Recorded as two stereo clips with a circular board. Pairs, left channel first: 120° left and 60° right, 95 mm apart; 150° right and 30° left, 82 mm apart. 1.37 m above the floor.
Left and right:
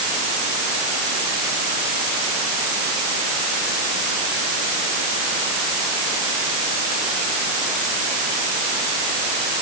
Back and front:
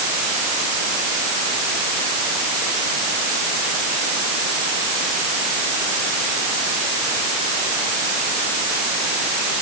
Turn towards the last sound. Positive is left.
No sound to turn to.